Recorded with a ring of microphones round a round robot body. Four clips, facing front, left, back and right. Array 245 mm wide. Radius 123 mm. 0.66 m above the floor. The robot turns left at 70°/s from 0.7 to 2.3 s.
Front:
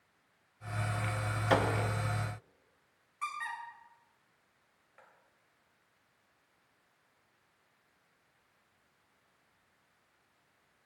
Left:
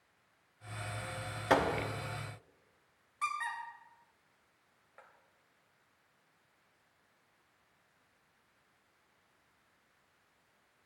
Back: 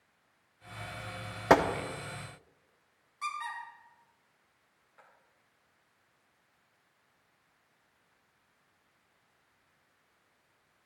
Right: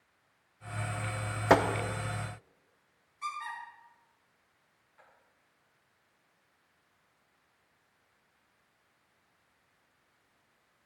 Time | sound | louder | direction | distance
1.5 | a gunshot | right 5 dB, back 6 dB | 150° right | 0.8 m
3.2 | a squeak | left 1 dB, back 1 dB | 75° left | 2.5 m